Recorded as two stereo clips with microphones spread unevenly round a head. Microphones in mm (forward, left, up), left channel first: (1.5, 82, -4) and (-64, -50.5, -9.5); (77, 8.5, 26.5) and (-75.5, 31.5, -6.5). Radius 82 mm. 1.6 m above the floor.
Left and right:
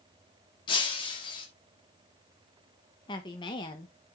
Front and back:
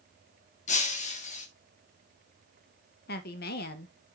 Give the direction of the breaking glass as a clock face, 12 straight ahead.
12 o'clock.